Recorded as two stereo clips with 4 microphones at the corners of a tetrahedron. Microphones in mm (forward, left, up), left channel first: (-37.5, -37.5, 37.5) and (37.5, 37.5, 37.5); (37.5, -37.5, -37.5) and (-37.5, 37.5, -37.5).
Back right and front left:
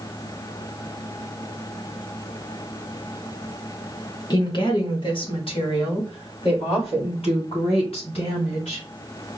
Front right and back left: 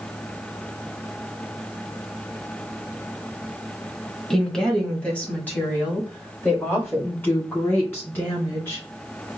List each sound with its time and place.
4.3 s a woman speaking: 130° right, 1.3 m; by 8.9 s 110° right, 4 m